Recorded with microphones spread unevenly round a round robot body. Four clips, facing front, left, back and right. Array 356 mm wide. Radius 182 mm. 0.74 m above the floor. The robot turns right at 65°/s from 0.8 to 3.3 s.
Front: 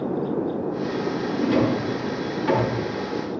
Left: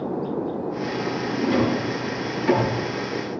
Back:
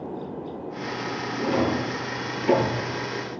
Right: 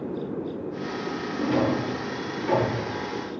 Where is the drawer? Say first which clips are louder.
Left 2 dB, front 2 dB; 20° right, 4.5 m; by 2.8 s 75° left, 4.5 m.